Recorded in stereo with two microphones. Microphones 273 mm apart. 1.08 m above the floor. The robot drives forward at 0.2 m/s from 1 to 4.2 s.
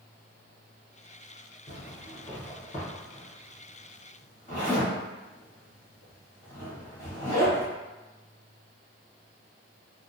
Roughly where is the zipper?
Left.